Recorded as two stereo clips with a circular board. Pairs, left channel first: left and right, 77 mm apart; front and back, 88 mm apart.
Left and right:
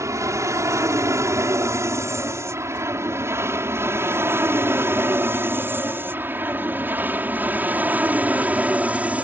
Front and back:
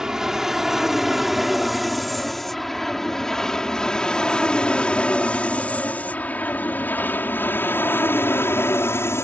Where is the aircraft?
100° right; by 9.2 s 30° right.